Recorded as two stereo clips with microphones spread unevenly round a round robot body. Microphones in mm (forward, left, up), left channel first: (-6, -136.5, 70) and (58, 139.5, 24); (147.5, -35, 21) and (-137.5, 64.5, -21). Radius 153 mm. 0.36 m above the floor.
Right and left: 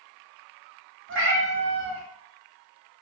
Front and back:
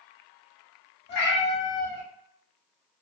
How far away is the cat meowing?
About 1.0 m.